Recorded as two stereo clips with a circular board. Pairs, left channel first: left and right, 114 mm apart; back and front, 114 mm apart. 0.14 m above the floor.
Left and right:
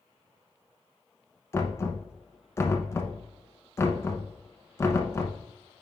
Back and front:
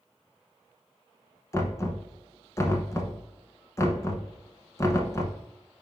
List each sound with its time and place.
1.5 s knocking: 140° left, 0.9 m